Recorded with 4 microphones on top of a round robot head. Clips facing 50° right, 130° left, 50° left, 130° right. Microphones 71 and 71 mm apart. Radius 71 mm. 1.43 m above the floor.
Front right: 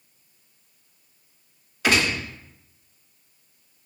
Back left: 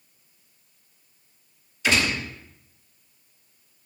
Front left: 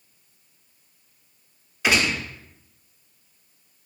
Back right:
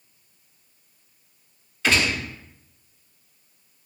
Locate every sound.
1.8 s a gunshot: 20° right, 1.1 m